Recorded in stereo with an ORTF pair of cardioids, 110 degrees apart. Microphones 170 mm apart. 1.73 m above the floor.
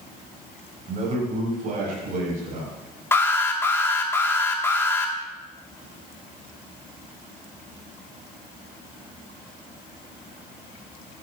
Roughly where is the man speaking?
Ahead right.